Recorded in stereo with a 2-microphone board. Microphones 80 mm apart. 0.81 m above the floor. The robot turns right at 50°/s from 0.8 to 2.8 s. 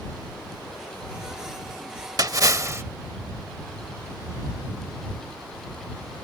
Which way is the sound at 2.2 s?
80° right.